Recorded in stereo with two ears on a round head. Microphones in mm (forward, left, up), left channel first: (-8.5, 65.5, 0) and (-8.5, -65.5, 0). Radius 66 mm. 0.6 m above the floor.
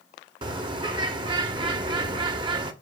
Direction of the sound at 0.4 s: 30° right (ahead or behind).